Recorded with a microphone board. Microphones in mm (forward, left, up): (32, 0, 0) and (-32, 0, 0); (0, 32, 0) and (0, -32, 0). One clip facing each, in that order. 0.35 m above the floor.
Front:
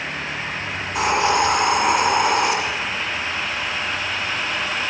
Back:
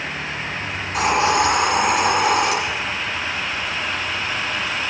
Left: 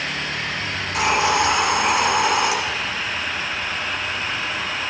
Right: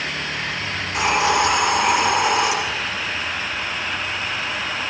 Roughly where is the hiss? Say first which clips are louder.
Back 1 dB, even; behind.